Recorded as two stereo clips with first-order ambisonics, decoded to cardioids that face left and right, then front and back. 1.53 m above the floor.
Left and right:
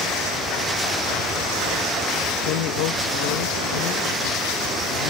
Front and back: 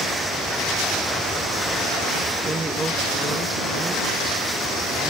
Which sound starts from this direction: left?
A woman speaking, at 2.5 s.